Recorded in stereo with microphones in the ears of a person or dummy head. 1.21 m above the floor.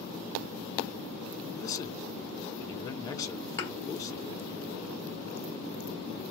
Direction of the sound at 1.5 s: 20° left (ahead or behind).